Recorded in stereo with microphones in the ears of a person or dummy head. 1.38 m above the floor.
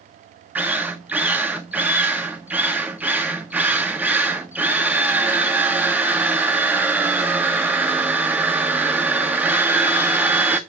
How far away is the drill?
About 1.5 m.